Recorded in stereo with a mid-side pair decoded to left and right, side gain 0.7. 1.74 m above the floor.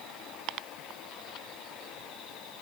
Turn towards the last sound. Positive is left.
No sound to turn to.